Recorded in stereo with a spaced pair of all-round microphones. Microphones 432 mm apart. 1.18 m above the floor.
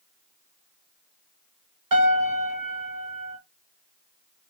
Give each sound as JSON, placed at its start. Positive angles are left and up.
{"t": 1.9, "sound": "a piano", "side_deg": -50, "distance_m": 0.9}